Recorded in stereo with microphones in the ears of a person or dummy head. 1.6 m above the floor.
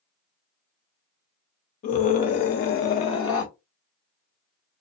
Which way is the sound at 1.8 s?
45° left (ahead or behind).